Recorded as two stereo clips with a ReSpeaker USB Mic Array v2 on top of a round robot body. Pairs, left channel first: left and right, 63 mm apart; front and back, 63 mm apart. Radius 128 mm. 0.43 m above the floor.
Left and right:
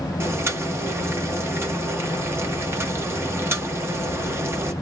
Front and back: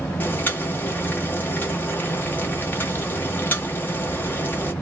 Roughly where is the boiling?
Ahead right.